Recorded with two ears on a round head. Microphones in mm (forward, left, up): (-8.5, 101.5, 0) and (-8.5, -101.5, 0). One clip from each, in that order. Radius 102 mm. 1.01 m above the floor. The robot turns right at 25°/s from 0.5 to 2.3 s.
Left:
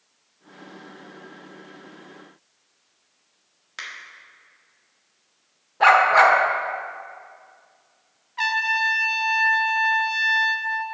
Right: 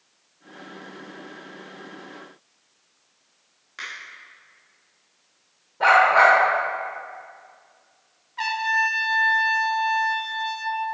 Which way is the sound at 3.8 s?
30° left (ahead or behind).